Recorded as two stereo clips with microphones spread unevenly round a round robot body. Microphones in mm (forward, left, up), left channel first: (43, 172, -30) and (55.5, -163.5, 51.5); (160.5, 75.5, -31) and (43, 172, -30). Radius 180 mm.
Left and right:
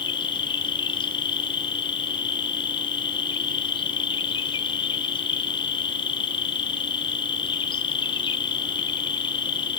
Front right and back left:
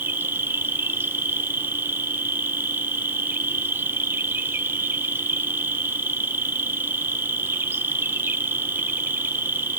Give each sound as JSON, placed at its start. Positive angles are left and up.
{"t": 0.0, "sound": "an insect", "azimuth_deg": 80, "distance_m": 0.9}